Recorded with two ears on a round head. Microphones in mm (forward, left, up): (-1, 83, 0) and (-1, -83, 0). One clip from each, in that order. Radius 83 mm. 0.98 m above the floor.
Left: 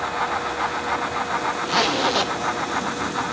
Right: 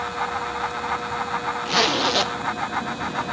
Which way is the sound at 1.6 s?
15° right (ahead or behind).